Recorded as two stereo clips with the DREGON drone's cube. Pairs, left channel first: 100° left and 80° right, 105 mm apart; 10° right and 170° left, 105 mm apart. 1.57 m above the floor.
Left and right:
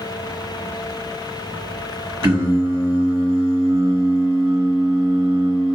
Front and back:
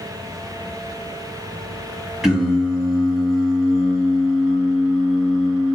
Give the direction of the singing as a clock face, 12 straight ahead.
4 o'clock.